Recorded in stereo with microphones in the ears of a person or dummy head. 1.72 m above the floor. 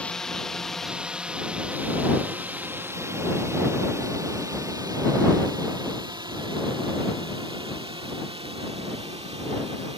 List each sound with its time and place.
0.0 s a drone: 5° left (ahead or behind); by 10.0 s 30° right (ahead or behind)